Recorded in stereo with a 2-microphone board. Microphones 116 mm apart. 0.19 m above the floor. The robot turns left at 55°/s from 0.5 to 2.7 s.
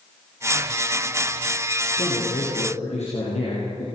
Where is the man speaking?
130° left, 6.5 m; by 3.9 s 80° left, 6.5 m.